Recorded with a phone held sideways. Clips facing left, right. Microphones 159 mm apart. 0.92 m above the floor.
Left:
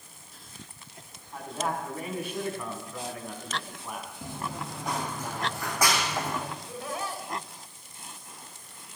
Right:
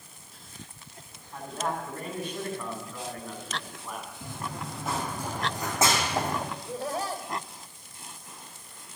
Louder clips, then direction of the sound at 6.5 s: Right 3 dB; 40° right (ahead or behind).